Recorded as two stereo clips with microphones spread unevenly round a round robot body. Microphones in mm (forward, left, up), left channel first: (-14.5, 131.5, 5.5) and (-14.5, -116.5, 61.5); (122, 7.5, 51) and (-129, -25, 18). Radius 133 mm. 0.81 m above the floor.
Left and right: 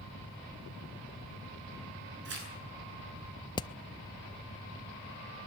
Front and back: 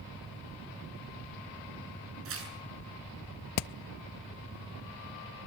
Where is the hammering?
20° left, 0.5 m.